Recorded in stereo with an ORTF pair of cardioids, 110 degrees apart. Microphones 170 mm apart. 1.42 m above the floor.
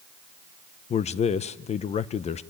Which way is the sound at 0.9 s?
40° left.